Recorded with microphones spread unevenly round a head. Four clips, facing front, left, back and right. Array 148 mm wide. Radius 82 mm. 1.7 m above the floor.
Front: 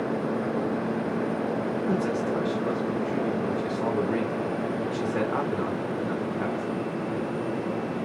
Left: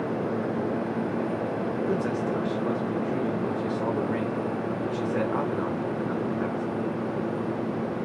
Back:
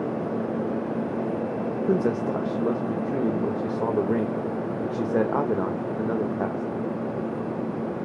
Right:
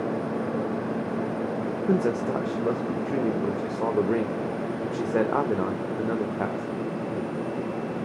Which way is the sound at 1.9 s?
140° right.